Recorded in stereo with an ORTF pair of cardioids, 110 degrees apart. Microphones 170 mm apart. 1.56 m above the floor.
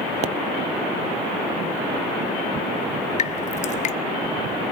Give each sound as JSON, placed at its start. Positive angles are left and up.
{"t": 0.2, "sound": "a pop", "azimuth_deg": -40, "distance_m": 0.9}
{"t": 3.2, "sound": "dripping", "azimuth_deg": 45, "distance_m": 1.2}